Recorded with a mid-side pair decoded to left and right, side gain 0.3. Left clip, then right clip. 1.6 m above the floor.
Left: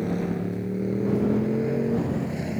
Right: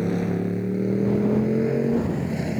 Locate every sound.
0.0 s a motorcycle: 35° right; by 2.6 s 30° right